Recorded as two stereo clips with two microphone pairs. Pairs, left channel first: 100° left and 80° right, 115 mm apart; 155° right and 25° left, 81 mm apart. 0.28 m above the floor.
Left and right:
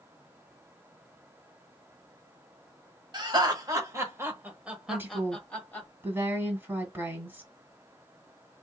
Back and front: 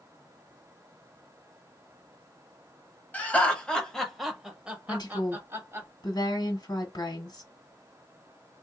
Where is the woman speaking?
145° right, 1.8 m.